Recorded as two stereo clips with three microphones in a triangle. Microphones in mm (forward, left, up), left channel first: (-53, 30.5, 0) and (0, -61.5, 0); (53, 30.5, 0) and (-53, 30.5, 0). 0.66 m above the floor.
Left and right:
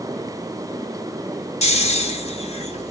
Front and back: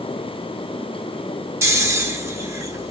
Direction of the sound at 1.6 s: 115° left.